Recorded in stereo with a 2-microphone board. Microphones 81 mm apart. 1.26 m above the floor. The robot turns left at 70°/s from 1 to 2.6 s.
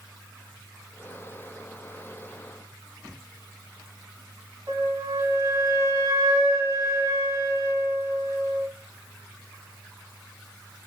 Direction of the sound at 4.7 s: 40° right (ahead or behind).